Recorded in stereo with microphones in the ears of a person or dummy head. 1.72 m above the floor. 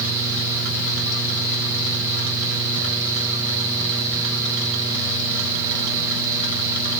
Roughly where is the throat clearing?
I don't hear throat clearing.